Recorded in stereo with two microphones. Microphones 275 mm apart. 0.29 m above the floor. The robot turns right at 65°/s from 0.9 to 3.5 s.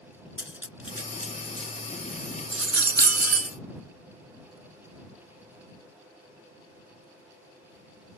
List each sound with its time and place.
0.4 s cutlery clinking: 45° left (ahead or behind); by 3.6 s 55° right (ahead or behind)